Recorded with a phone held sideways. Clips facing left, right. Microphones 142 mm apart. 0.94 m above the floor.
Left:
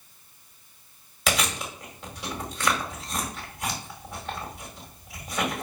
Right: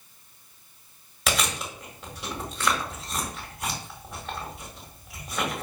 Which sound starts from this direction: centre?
Chewing, at 1.3 s.